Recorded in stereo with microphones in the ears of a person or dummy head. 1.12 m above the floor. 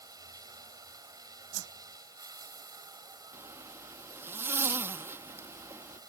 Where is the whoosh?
80° right.